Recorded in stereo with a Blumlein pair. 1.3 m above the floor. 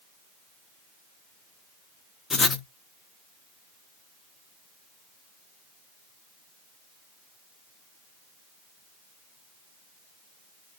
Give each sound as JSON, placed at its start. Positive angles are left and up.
{"t": 2.3, "sound": "writing", "azimuth_deg": 15, "distance_m": 0.6}